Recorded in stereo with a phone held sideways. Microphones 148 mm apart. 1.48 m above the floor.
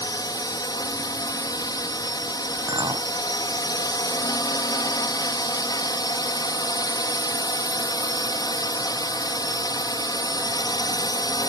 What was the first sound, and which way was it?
A drone, 25° left (ahead or behind).